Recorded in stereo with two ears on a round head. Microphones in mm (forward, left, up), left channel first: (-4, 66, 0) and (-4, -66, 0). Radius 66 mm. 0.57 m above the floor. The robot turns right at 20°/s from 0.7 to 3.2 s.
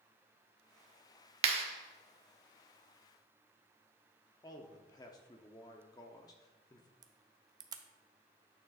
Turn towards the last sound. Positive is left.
turn(degrees=-25)  # may be behind; listen again after turning